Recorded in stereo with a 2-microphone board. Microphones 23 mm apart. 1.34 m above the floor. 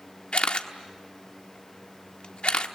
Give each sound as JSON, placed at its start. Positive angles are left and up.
{"t": 0.3, "sound": "a camera shutter", "side_deg": 55, "distance_m": 1.3}